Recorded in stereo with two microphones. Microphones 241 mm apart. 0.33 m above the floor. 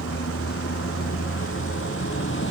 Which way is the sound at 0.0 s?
70° left (ahead or behind).